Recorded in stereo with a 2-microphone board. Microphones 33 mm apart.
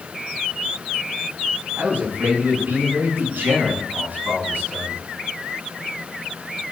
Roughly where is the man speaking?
Right.